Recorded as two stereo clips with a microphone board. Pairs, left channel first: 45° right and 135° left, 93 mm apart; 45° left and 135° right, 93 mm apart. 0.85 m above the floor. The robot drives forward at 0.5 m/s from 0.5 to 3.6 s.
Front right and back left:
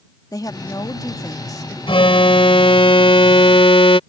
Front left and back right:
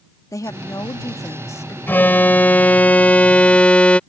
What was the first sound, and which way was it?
A woman speaking, 5° right.